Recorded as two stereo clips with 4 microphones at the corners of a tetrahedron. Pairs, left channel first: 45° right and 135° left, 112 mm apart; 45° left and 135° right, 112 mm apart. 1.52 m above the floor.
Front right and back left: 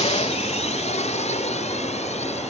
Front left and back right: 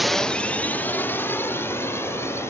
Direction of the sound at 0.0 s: 45° right.